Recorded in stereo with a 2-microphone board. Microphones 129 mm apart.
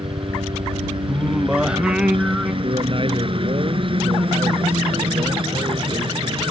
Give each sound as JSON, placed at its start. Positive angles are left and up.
{"t": 0.0, "sound": "a helicopter", "side_deg": -45}
{"t": 1.1, "sound": "singing", "side_deg": -5}
{"t": 2.6, "sound": "a man speaking", "side_deg": -40}